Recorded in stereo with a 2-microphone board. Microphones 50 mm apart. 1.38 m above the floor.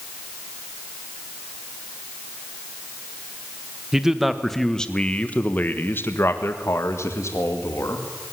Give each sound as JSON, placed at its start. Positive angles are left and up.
{"t": 3.9, "sound": "a man speaking", "side_deg": -10, "distance_m": 1.6}